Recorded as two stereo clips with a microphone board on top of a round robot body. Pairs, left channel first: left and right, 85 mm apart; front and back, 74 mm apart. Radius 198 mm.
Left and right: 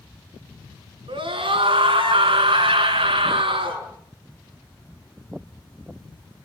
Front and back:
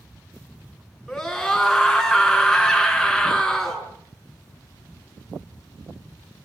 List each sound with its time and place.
1.1 s a scream: 85° right, 7.5 m